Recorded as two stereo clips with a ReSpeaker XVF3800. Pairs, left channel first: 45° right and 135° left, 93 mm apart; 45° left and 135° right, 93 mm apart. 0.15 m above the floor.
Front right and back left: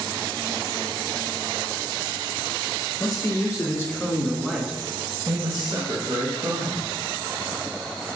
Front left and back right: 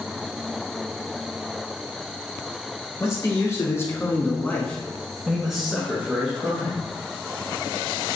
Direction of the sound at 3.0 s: 5° right.